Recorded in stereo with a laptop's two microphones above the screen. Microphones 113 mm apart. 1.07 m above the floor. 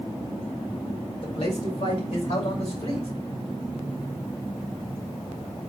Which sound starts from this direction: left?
A man speaking, at 1.2 s.